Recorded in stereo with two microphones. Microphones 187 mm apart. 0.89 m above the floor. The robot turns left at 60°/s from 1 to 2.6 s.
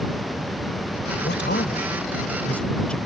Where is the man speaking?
85° left; by 3.0 s 5° left.